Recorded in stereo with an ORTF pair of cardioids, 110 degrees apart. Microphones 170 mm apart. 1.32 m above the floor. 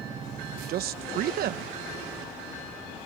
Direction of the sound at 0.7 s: 65° right.